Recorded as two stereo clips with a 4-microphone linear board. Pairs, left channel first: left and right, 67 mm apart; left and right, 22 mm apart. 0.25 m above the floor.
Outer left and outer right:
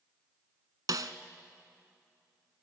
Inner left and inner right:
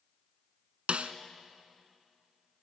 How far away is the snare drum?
About 0.9 m.